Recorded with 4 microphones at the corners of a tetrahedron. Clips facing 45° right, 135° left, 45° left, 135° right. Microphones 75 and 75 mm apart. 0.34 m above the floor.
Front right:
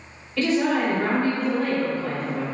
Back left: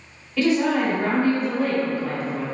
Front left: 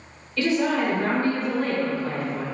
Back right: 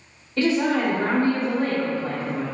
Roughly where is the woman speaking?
Behind right.